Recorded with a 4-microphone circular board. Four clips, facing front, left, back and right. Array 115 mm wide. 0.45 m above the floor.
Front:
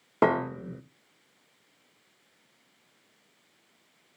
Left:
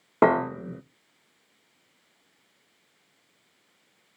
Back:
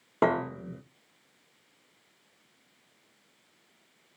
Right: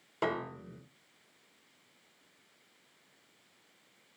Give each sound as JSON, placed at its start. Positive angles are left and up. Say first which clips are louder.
{"t": 0.2, "sound": "a piano", "louder": "left 14 dB, front 2 dB", "azimuth_deg": 80, "distance_m": 0.6}